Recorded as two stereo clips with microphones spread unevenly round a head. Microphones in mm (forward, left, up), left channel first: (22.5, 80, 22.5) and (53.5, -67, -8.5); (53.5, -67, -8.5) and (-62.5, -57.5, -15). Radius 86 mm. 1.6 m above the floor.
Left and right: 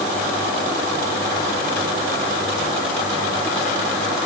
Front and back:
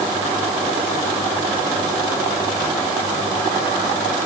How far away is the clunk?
I don't hear a clunk.